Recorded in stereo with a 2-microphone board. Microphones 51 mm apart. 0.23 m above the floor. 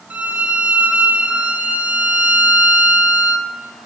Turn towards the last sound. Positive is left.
turn(degrees=-35)  # may be behind; listen again after turning